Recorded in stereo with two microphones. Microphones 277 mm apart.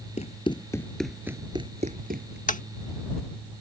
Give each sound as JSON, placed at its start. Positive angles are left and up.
{"t": 0.2, "sound": "running footsteps", "side_deg": 25}
{"t": 2.5, "sound": "tapping", "side_deg": 30}